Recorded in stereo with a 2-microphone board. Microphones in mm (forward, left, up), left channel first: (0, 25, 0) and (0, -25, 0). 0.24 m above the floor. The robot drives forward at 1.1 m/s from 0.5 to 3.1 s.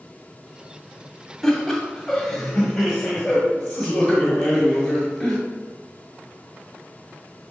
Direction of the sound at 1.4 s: 5° left (ahead or behind).